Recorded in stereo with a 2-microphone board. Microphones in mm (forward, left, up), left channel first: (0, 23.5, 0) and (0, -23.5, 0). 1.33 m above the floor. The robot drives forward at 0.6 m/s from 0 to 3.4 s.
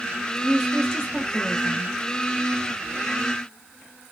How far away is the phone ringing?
I don't hear a phone ringing.